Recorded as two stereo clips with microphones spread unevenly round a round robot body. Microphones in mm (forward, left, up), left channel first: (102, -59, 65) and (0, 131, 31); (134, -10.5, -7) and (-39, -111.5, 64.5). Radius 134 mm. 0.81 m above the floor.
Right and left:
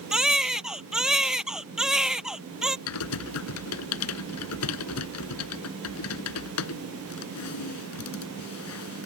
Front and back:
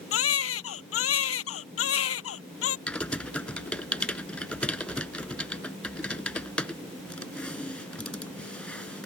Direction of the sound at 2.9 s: 60° right.